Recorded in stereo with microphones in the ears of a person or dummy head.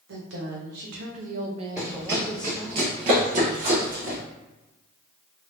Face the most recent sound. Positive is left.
turn(degrees=-50)  # may be behind; listen again after turning